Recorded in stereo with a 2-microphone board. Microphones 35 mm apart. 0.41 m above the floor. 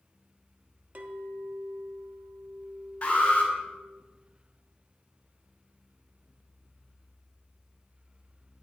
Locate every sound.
0.9 s a clink: 50° right (ahead or behind), 0.7 m
3.0 s an alarm: 35° left (ahead or behind), 3 m